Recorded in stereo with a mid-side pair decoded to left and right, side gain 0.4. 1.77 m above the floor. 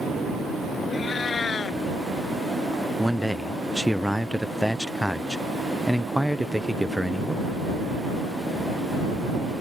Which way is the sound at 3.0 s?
Straight ahead.